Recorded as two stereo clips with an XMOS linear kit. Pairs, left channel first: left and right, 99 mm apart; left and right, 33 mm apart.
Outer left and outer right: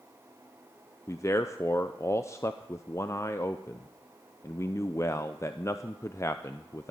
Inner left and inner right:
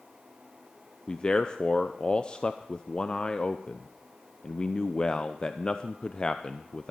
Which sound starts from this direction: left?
A man speaking, at 1.1 s.